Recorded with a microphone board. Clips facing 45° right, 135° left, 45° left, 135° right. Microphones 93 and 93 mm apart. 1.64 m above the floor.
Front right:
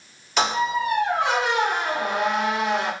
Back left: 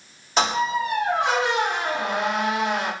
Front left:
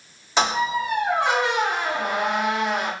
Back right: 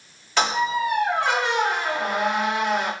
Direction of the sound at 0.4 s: 100° left.